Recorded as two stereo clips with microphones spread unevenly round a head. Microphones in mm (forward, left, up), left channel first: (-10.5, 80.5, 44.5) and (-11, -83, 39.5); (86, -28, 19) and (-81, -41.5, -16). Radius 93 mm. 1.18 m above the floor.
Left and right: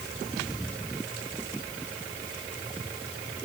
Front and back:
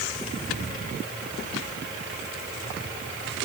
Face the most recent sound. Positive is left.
No sound to turn to.